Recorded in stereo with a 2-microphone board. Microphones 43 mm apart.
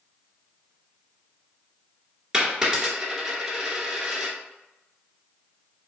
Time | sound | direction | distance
2.3 | a dropped coin | 15° right (ahead or behind) | 1.2 m